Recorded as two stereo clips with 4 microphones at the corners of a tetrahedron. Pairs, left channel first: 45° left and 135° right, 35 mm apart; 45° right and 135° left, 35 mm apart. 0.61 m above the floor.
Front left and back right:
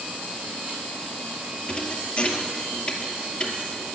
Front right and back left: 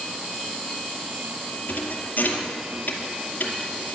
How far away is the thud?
About 2 m.